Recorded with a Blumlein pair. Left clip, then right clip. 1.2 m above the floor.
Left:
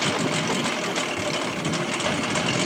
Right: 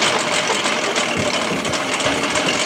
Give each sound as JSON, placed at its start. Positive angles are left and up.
{"t": 0.0, "sound": "a lawn mower", "azimuth_deg": -70}